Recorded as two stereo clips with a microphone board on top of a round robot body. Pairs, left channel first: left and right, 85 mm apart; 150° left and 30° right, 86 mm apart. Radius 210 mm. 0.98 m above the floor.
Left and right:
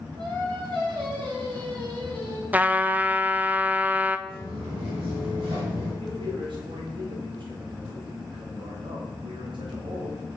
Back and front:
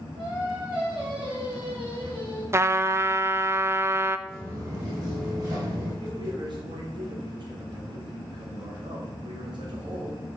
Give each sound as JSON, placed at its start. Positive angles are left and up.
{"t": 0.2, "sound": "singing", "azimuth_deg": -55, "distance_m": 3.5}
{"t": 2.5, "sound": "a trumpet", "azimuth_deg": -35, "distance_m": 0.7}
{"t": 4.3, "sound": "footsteps", "azimuth_deg": -100, "distance_m": 1.8}
{"t": 6.0, "sound": "a man speaking", "azimuth_deg": -65, "distance_m": 2.5}